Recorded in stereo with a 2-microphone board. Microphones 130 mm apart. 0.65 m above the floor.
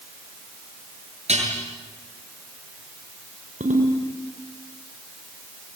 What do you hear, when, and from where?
1.3 s dishes clattering: 55° right (ahead or behind), 8 m
3.6 s a ringtone: 80° right, 6 m